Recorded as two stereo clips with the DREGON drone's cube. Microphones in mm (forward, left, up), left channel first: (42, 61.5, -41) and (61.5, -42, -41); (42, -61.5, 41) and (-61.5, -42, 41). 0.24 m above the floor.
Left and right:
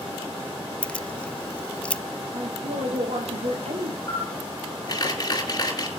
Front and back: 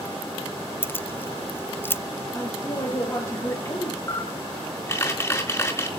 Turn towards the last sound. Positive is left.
turn(degrees=50)